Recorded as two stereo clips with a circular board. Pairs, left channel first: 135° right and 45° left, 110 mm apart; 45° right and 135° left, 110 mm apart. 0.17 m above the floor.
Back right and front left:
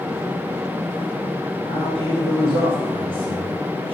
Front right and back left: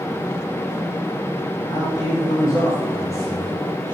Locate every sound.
1.6 s a man speaking: 5° left, 3.5 m; by 3.9 s 20° left, 2 m